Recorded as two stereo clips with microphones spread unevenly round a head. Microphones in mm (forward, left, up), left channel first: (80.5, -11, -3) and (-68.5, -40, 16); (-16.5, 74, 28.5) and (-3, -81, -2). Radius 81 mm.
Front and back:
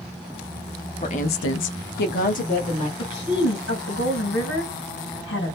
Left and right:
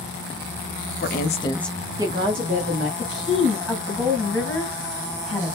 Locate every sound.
1.0 s a woman speaking: 70° left, 0.6 m; by 2.9 s 35° right, 1.2 m
3.0 s a woman speaking: 10° left, 1.7 m